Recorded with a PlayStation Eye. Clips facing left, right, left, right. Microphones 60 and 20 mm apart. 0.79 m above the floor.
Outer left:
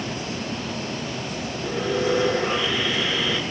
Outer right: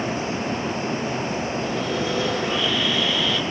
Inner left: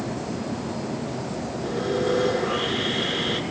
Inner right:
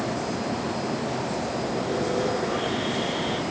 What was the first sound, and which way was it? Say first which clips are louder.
Sawing: outer left 6 dB, inner left 5 dB; 30° left (ahead or behind).